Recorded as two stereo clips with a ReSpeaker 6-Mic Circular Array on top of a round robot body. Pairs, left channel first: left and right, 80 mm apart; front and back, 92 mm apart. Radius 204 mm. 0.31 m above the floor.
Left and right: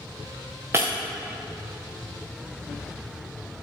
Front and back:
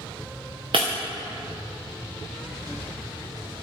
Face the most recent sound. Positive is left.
turn(degrees=-155)